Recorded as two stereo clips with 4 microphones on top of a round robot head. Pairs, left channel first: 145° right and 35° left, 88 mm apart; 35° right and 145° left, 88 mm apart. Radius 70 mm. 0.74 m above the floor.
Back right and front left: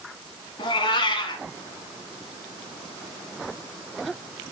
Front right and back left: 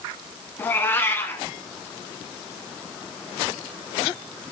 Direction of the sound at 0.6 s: 105° right.